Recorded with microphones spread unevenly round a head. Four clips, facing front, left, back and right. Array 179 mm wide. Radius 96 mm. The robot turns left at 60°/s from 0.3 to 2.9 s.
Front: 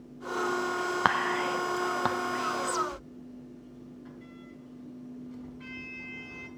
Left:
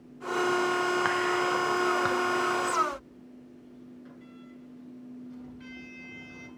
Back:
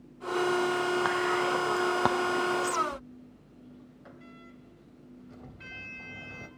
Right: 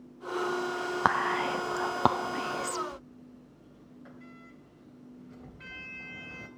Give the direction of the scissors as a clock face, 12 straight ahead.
I don't hear scissors.